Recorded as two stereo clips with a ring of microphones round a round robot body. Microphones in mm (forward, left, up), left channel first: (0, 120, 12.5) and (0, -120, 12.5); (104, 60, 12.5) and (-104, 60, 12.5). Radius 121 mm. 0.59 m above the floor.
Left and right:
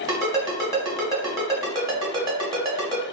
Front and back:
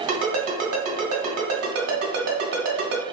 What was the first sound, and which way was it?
A ringtone, 165° right.